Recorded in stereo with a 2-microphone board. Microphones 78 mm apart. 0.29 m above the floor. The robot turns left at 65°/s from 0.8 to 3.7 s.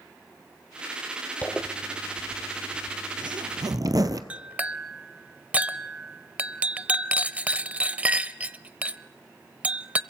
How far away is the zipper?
About 1.2 m.